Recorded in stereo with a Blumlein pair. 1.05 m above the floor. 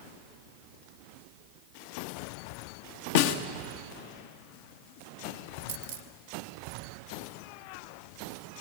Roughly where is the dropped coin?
Ahead right.